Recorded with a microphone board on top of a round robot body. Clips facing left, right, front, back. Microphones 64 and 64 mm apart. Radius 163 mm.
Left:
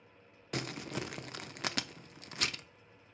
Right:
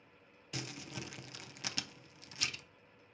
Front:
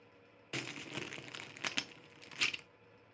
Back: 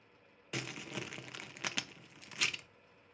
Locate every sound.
0.5 s crumpling: 95° left, 0.9 m